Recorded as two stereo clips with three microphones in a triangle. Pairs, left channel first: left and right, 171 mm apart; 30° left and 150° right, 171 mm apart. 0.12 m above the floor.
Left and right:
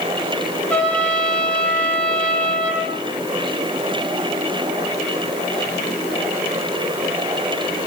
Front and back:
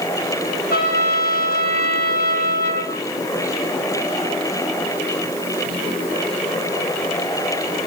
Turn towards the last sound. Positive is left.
turn(degrees=5)